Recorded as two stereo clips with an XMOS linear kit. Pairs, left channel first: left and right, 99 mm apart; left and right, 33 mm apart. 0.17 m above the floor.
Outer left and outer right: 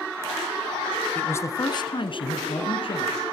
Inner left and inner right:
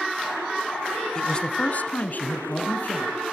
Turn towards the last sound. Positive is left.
turn(degrees=55)  # may be behind; listen again after turning